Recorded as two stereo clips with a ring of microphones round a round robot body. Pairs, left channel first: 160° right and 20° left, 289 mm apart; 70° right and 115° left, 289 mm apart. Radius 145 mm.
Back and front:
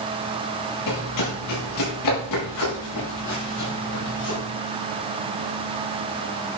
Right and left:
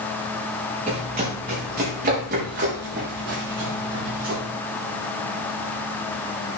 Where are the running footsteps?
175° left, 6 m; by 4.4 s 165° left, 7.5 m.